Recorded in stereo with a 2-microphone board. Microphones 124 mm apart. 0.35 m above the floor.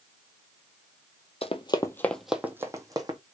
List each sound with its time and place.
1.4 s running footsteps: 55° left (ahead or behind), 0.7 m; by 3.2 s 35° right (ahead or behind), 1.1 m